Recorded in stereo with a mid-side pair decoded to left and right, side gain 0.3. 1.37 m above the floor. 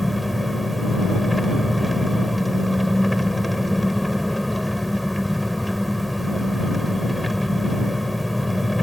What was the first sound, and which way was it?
An engine running, 10° left.